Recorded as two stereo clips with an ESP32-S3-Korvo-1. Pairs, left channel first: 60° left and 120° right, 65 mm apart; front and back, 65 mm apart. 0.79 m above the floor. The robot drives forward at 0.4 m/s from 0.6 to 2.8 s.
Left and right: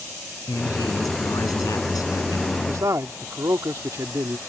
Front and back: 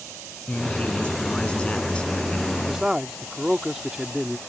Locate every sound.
0.5 s a man speaking: 70° left; by 2.6 s 75° left
2.7 s a man speaking: 100° right